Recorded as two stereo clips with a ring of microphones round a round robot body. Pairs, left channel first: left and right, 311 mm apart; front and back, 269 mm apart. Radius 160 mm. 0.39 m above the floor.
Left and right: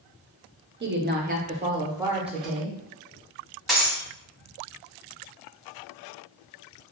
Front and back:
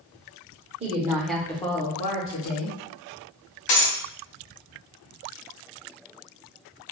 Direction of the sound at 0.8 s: 125° right.